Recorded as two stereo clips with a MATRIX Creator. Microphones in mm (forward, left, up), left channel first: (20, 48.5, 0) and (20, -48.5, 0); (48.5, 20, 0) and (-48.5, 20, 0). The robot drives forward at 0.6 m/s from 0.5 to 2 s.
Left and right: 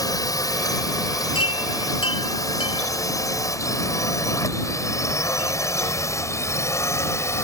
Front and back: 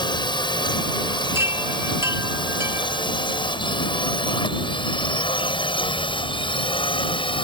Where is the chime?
115° left.